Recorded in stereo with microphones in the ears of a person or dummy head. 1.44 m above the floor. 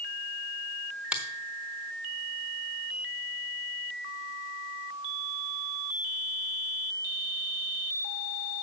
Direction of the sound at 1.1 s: 5° right (ahead or behind).